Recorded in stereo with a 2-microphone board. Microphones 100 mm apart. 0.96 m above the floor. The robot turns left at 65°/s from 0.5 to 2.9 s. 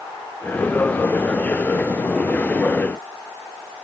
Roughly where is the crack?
I don't hear a crack.